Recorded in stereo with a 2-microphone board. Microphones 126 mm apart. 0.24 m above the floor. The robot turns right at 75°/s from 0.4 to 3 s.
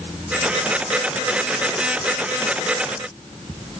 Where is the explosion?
I don't hear an explosion.